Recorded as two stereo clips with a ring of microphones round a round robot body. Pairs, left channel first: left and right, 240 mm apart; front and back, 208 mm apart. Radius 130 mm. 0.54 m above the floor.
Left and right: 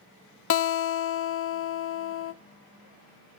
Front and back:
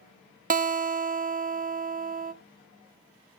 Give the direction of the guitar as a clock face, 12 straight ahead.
8 o'clock.